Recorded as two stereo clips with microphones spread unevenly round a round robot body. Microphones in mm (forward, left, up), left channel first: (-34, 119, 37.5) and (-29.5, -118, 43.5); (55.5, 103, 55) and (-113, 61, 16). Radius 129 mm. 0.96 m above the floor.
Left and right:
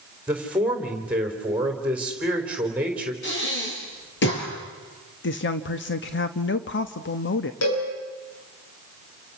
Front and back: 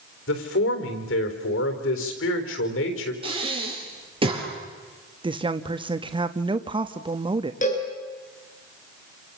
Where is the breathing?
135° left, 7 m.